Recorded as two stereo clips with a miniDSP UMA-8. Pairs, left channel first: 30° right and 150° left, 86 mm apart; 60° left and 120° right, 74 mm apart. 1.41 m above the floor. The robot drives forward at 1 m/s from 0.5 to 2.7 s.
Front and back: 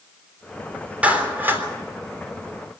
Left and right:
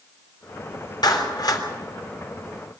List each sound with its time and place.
1.0 s a clap: 80° left, 3.5 m; by 1.6 s 90° left, 3.5 m